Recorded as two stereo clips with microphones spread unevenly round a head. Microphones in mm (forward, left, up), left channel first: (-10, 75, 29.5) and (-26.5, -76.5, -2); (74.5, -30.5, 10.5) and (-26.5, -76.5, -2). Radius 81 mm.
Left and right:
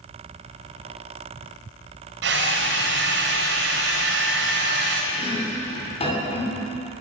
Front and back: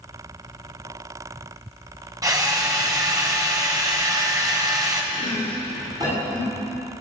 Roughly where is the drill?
Right.